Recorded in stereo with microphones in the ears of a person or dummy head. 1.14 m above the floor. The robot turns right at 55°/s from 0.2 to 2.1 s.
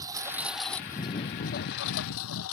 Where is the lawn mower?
10° right (ahead or behind); by 2.5 s 80° left.